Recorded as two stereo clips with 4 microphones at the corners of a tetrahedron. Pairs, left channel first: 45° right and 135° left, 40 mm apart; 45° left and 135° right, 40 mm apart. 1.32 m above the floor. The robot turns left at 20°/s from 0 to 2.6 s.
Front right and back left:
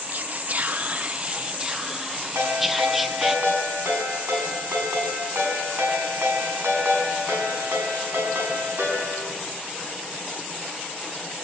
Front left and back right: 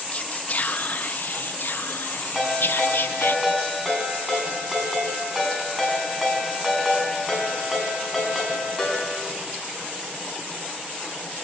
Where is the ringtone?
145° left, 6.5 m; by 9.3 s 140° left, 6.5 m.